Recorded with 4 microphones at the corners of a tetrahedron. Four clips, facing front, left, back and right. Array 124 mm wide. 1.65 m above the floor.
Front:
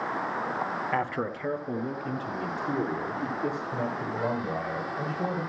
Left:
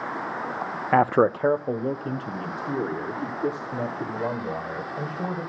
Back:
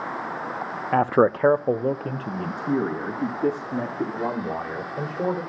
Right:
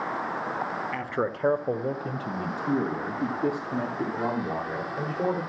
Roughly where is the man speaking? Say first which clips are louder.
Left 15 dB, back 15 dB; left.